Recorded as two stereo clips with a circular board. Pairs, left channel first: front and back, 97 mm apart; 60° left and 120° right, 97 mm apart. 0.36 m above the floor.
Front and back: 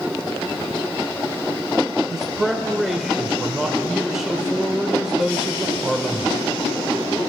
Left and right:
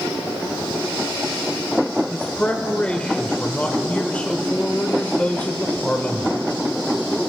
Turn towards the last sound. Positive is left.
turn(degrees=100)